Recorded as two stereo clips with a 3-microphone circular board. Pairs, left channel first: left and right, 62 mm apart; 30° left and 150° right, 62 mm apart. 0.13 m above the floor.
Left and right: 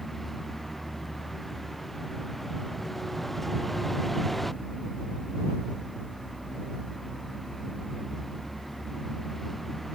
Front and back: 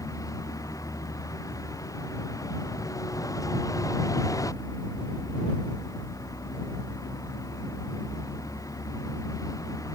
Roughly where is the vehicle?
Ahead.